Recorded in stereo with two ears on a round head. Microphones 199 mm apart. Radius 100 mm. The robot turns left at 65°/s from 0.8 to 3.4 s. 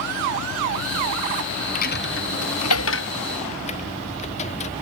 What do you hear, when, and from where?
1.8 s a dropped coin: 40° left (ahead or behind); by 4.7 s 30° left (ahead or behind)